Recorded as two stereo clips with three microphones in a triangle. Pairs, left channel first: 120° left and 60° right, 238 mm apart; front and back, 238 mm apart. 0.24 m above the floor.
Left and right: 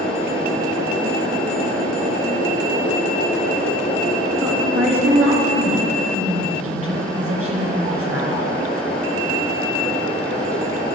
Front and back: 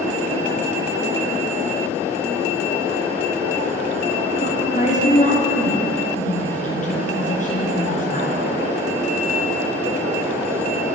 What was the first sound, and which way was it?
A woman speaking, 55° right.